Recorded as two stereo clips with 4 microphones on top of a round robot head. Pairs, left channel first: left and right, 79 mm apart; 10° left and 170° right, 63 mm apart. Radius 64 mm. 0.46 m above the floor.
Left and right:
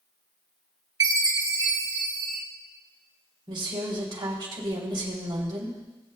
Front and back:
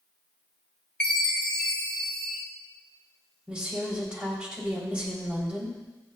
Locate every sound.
1.0 s a chime: 65° right, 1.6 m
3.5 s a woman speaking: 95° right, 3 m